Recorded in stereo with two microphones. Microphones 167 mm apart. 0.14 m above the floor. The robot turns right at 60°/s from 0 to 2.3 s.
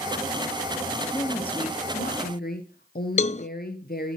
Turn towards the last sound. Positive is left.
turn(degrees=45)  # may be behind; listen again after turning